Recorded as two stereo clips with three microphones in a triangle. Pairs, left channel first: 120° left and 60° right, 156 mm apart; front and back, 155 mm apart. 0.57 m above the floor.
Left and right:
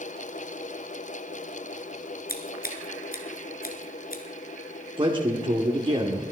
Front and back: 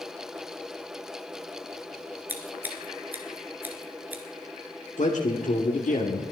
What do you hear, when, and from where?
2.3 s scissors: 105° left, 2.0 m
5.0 s a man speaking: 10° right, 1.6 m